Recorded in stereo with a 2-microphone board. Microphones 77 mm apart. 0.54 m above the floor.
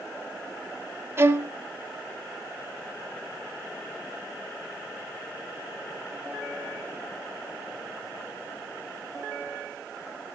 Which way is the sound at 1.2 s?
30° right (ahead or behind).